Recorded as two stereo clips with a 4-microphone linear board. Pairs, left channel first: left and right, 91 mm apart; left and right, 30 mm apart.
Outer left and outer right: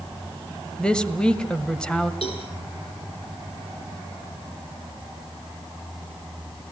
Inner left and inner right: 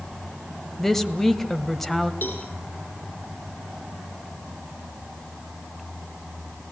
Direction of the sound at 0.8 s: 10° left (ahead or behind).